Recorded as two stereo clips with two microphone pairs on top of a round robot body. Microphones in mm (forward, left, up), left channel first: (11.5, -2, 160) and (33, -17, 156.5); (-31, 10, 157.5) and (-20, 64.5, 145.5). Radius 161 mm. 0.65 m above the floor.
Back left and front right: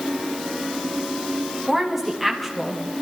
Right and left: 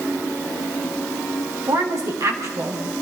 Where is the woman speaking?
50° left, 5.5 m.